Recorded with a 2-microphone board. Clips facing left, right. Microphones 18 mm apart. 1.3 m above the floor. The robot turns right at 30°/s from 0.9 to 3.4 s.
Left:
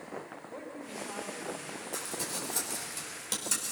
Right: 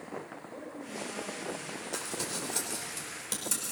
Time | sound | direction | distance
0.5 | a woman speaking | 30° left (ahead or behind) | 4.5 m
1.9 | crumpling | 30° right (ahead or behind) | 5 m